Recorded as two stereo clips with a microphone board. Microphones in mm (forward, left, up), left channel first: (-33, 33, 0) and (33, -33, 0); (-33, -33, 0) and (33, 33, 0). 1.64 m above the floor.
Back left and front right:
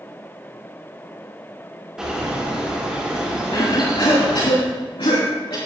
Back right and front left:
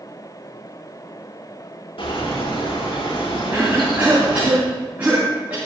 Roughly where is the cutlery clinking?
I don't hear cutlery clinking.